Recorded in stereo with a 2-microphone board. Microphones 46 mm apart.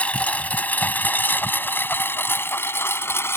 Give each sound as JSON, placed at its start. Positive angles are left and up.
{"t": 0.0, "sound": "a lawn mower", "side_deg": 30}